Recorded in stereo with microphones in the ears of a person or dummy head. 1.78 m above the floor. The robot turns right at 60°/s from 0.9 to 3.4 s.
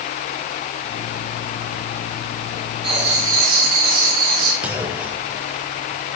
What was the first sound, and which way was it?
Writing, 145° right.